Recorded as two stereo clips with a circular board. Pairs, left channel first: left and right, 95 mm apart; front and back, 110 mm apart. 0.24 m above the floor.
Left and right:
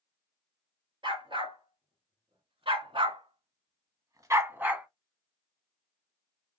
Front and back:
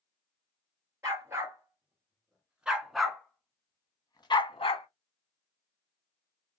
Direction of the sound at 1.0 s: 115° right.